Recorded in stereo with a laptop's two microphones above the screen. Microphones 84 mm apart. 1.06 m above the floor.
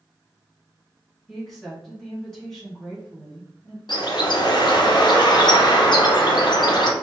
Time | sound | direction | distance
1.3 | a woman speaking | 5° left (ahead or behind) | 1.5 m
3.9 | a bird | 60° left (ahead or behind) | 0.6 m